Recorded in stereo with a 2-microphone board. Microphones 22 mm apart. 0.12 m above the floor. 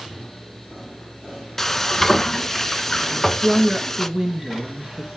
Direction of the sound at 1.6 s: 10° left (ahead or behind).